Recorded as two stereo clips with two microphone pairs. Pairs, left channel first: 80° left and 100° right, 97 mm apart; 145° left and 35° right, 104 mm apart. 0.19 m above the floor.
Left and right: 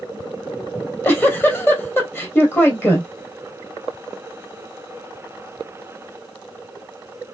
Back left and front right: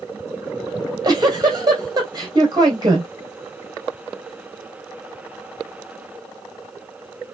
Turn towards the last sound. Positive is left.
turn(degrees=15)